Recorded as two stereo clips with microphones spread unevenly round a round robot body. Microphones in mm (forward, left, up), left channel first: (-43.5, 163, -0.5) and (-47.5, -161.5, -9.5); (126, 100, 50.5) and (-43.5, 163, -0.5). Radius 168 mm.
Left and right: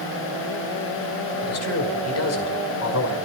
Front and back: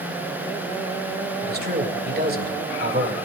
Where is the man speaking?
130° left, 6 m.